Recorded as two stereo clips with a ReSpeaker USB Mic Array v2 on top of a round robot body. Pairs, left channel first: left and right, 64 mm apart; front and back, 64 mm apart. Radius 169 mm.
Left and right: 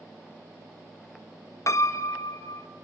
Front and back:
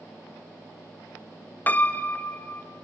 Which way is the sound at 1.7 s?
60° left.